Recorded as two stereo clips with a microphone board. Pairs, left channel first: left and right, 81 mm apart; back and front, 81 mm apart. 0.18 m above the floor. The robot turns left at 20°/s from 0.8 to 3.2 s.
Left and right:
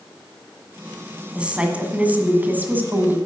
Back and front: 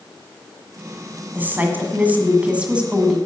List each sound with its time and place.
1.4 s a woman speaking: 30° right, 1.5 m; by 3.2 s 65° right, 1.5 m